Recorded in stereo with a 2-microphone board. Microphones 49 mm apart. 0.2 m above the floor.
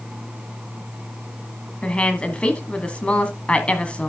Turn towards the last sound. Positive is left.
turn(degrees=25)  # may be behind; listen again after turning